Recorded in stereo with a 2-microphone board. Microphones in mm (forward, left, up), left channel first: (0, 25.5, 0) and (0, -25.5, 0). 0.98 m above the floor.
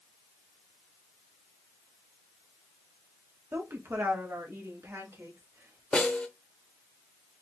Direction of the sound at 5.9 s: 20° left (ahead or behind).